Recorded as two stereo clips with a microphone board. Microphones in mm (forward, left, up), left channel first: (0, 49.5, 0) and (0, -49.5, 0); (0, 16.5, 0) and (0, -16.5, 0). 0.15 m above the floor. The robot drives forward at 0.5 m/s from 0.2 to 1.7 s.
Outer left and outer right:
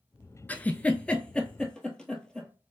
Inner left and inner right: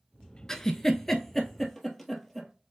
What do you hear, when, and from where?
0.5 s a giggle: 15° left (ahead or behind), 0.5 m; by 2.5 s 10° left (ahead or behind), 1.1 m